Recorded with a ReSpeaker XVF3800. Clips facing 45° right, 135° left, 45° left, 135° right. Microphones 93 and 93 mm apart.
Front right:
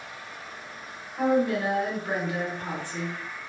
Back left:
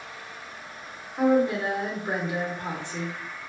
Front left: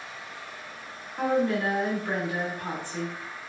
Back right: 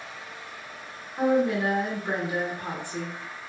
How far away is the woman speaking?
About 0.9 m.